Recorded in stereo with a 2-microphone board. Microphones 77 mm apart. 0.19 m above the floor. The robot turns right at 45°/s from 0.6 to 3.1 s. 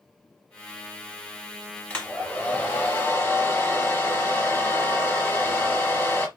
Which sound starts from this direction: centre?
A hair dryer, at 1.9 s.